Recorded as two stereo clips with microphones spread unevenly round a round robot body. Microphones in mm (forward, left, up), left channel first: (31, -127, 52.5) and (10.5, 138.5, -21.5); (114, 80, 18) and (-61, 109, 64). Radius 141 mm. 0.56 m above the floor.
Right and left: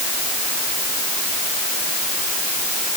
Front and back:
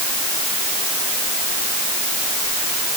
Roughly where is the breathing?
No breathing in this recording.